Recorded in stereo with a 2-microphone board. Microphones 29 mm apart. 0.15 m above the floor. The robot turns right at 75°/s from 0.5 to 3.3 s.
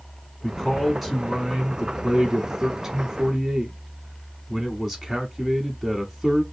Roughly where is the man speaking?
Centre.